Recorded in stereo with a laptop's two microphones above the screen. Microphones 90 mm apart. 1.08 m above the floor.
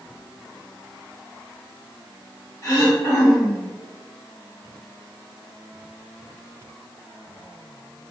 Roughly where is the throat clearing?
Left.